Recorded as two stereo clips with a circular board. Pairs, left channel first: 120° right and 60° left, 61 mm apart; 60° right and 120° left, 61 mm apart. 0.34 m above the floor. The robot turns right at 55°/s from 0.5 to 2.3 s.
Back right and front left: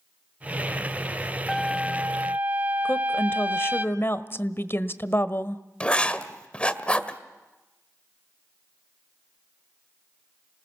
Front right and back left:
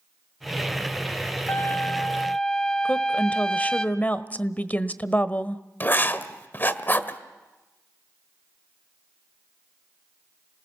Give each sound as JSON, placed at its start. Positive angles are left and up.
{"t": 1.5, "sound": "a trumpet", "azimuth_deg": -30, "distance_m": 1.1}
{"t": 2.9, "sound": "a woman speaking", "azimuth_deg": -110, "distance_m": 1.2}
{"t": 5.8, "sound": "writing", "azimuth_deg": -65, "distance_m": 1.5}